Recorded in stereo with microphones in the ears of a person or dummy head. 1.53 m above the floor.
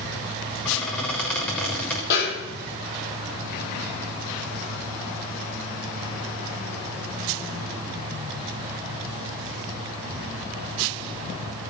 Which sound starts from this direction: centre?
A squeak, at 0.7 s.